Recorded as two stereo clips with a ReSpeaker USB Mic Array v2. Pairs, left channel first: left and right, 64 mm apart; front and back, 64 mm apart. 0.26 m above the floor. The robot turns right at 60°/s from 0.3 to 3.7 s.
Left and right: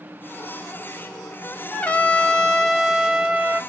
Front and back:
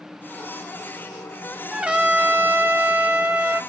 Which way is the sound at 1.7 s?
120° left.